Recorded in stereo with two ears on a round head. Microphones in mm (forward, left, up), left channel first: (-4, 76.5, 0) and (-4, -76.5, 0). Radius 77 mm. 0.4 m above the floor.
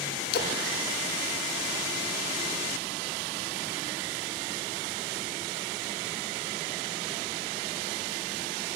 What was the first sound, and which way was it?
A splash, 60° left (ahead or behind).